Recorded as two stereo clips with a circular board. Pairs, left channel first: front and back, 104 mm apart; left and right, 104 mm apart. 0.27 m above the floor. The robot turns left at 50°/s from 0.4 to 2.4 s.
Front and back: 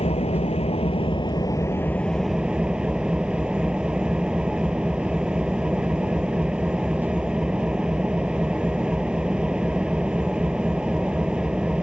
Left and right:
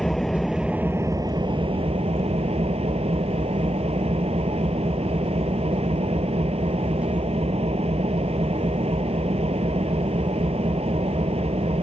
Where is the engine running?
Straight ahead; by 11.8 s 100° right.